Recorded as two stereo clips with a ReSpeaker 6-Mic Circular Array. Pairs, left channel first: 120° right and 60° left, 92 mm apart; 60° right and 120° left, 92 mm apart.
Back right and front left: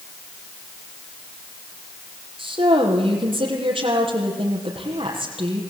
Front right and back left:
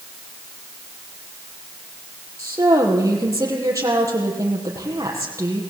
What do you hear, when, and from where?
2.4 s a woman speaking: 65° left, 6 m